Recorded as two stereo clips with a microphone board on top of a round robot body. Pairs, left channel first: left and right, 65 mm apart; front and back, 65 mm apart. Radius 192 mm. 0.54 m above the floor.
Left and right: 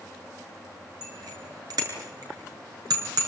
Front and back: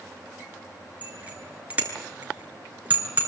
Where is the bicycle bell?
110° right, 7.5 m; by 3.3 s 115° right, 6.5 m.